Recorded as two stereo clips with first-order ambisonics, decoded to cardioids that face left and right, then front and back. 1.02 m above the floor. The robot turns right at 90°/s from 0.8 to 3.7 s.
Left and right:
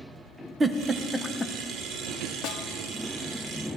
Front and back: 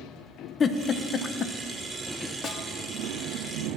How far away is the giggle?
About 0.5 m.